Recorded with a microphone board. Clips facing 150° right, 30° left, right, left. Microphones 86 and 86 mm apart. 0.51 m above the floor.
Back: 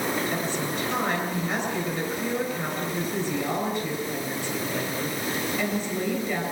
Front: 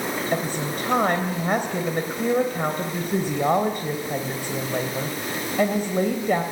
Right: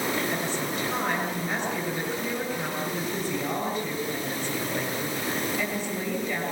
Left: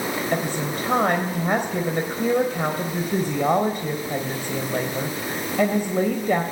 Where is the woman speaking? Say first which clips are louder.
Front 2 dB, left 4 dB; 65° left, 3 m.